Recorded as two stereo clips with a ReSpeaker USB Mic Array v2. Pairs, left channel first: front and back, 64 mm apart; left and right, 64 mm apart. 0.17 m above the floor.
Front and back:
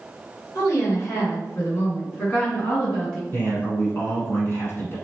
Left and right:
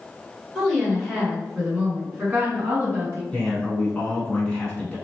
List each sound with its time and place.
0.6 s a woman speaking: 5° left, 1.8 m; by 3.2 s 75° right, 1.7 m
3.3 s a man speaking: 30° left, 1.3 m